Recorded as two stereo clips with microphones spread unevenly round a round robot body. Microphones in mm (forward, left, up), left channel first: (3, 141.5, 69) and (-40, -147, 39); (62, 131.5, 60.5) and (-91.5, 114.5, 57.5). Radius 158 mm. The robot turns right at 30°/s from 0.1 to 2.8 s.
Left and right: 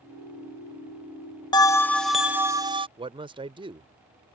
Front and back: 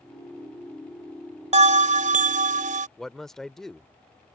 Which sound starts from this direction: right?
A man speaking, at 3.0 s.